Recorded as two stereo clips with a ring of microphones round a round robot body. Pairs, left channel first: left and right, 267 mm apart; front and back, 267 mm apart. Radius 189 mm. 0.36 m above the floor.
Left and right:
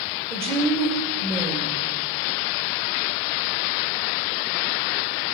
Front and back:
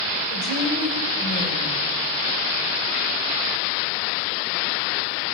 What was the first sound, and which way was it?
A woman speaking, 45° right.